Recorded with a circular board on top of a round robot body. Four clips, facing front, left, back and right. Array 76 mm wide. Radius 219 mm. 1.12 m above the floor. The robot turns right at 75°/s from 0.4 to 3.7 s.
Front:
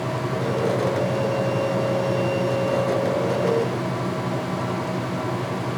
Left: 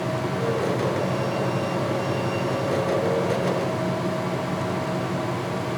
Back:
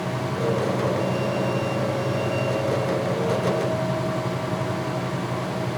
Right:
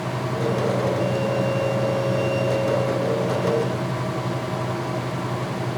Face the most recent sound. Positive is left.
No sound to turn to.